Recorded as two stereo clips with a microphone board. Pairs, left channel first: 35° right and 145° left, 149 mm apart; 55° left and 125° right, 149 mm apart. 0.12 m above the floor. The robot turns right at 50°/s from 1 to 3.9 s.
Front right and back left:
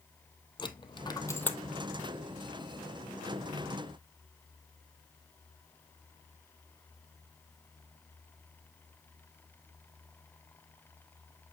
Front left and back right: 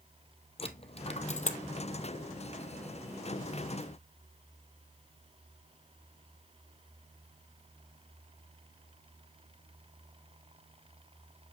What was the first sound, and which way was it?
A dropped coin, 20° left.